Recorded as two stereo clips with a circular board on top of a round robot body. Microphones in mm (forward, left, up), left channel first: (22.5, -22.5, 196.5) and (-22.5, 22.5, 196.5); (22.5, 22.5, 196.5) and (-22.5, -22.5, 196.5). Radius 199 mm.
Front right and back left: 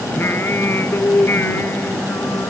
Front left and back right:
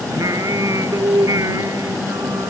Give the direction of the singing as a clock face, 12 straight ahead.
3 o'clock.